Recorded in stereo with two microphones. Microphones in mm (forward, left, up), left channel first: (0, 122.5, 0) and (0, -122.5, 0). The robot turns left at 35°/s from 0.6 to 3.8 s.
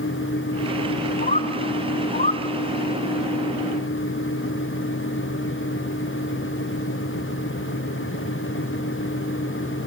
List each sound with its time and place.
1.2 s a bird: 30° left (ahead or behind), 0.6 m